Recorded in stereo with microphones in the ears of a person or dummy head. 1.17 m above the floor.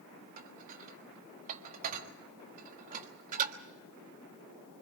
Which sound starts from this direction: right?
Dishes clattering, at 0.4 s.